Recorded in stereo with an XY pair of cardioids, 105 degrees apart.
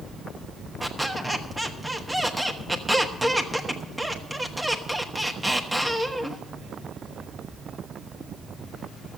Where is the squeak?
10° right, 1.4 m.